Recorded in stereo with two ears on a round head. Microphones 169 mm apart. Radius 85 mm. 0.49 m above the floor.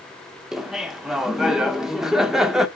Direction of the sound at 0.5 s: 5° right (ahead or behind).